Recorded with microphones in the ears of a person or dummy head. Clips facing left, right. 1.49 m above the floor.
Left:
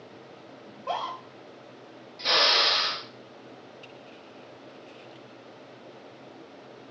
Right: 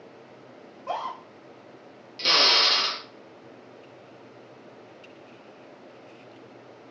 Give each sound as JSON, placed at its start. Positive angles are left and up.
{"t": 0.7, "sound": "a scream", "side_deg": 10, "distance_m": 0.8}
{"t": 2.2, "sound": "a drill", "side_deg": -45, "distance_m": 0.6}